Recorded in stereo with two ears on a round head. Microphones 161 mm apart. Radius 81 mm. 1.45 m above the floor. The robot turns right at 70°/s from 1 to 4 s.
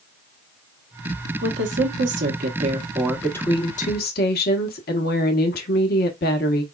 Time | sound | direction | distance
1.4 | a woman speaking | 125° right | 1.1 m